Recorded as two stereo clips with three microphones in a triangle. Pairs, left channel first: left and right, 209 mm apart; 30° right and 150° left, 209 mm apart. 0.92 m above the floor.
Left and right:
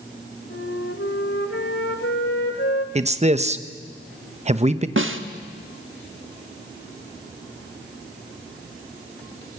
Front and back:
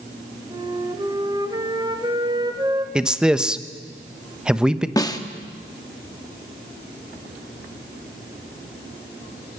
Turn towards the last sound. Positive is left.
turn(degrees=-105)